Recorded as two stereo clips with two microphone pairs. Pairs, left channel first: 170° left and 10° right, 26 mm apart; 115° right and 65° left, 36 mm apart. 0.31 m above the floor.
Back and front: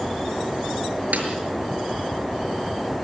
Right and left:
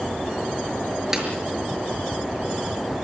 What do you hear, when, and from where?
1.1 s a snare drum: 10° right, 5.5 m